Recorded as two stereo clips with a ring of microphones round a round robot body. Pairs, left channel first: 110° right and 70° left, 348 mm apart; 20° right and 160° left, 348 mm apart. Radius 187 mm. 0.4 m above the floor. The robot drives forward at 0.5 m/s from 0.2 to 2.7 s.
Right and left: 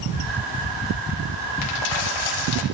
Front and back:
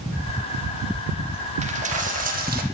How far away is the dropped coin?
About 3.5 m.